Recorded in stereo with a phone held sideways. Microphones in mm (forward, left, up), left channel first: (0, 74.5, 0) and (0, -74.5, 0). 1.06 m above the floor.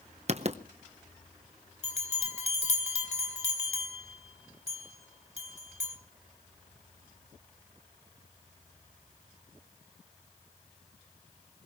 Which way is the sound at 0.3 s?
45° right (ahead or behind).